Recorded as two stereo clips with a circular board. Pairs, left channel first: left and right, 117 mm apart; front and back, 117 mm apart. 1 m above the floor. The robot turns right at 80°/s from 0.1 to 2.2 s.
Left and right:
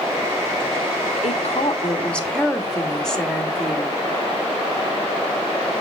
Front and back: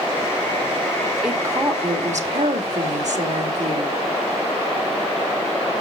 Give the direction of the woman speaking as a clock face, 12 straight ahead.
9 o'clock.